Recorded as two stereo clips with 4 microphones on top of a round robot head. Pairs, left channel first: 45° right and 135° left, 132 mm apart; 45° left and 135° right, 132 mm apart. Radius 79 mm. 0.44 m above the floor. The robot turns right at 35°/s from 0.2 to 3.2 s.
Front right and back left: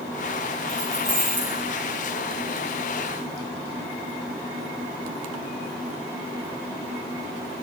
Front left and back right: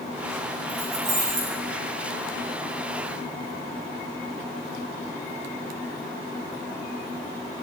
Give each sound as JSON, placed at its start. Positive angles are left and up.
{"t": 0.7, "sound": "keys jangling", "azimuth_deg": 170, "distance_m": 5.0}